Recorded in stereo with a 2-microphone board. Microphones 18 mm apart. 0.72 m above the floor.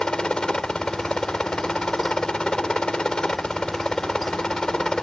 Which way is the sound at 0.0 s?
50° left (ahead or behind).